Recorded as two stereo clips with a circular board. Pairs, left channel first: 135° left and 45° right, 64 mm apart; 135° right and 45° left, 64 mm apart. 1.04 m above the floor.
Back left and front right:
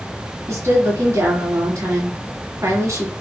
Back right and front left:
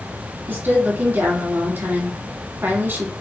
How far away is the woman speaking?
About 2 m.